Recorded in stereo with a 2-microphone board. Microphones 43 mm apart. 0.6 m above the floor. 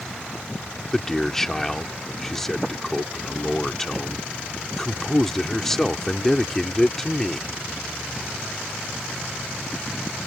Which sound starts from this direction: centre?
A man speaking, at 0.9 s.